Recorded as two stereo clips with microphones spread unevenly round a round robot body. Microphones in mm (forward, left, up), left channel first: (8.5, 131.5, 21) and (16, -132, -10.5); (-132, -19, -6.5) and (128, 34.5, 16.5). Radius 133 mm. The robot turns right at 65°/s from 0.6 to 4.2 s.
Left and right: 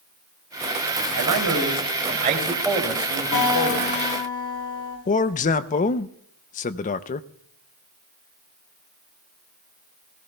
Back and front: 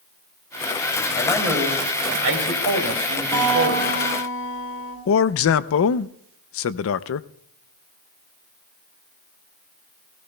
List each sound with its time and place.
1.1 s a man speaking: 100° right, 3.5 m; by 3.9 s 80° left, 3.5 m
3.3 s a guitar: 110° left, 3.5 m; by 5.0 s 165° left, 3.5 m
5.1 s a man speaking: 155° left, 0.5 m